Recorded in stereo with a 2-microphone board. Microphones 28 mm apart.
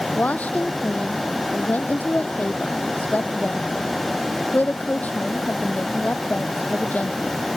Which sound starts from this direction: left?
A woman speaking, at 0.1 s.